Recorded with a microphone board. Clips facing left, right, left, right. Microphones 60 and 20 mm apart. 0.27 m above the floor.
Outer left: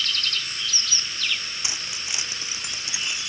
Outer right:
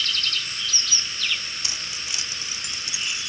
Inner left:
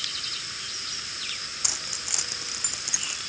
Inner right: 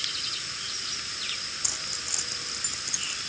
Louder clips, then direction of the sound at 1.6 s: Outer left 1 dB, inner left 5 dB; 20° left (ahead or behind).